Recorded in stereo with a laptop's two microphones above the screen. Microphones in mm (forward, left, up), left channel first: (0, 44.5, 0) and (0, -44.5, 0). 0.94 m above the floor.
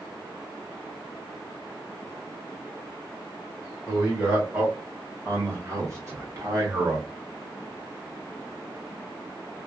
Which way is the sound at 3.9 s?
15° right (ahead or behind).